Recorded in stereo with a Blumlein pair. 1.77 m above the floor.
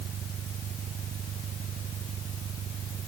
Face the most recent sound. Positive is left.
turn(degrees=-25)